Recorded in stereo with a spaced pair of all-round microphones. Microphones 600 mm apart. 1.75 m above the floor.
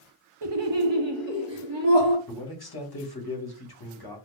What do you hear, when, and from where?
0.4 s laughter: 45° right (ahead or behind), 0.6 m
2.3 s a man speaking: 40° left (ahead or behind), 1.1 m